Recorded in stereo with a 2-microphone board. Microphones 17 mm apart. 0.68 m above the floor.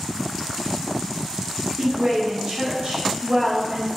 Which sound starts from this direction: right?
A woman speaking, at 1.8 s.